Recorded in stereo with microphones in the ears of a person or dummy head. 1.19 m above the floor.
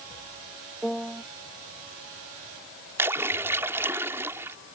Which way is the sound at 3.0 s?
10° right (ahead or behind).